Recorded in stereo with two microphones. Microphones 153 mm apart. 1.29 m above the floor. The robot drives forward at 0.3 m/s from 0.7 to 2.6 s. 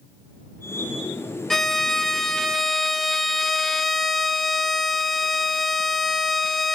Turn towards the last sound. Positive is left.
turn(degrees=0)  # may be behind; listen again after turning